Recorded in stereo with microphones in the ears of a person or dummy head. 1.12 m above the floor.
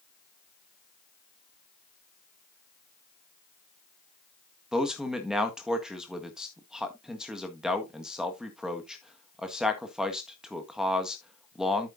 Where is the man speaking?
5° right (ahead or behind), 1.5 m.